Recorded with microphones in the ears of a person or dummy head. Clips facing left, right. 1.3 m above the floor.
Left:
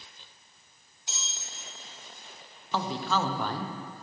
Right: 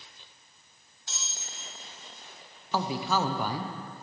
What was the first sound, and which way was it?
A bell, 15° left (ahead or behind).